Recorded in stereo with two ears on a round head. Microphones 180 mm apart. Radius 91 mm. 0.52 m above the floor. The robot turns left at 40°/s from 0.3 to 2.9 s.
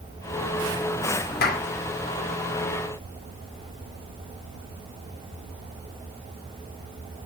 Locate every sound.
1.4 s a clap: 50° left (ahead or behind), 1.5 m; by 1.6 s 45° left (ahead or behind), 1.5 m